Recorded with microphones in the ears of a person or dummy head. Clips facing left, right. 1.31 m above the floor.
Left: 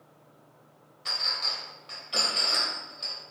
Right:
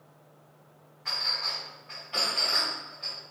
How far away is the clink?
About 1.2 m.